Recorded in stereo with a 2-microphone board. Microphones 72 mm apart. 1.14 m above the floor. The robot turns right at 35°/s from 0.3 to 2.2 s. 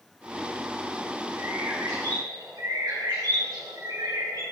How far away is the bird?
About 3 m.